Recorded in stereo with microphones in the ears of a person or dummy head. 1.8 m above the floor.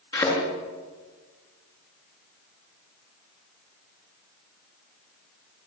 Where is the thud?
25° left (ahead or behind), 7 m.